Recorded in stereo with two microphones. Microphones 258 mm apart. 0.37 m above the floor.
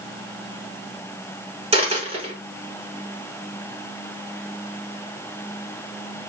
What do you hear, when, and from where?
1.7 s a dropped coin: 20° right (ahead or behind), 1.4 m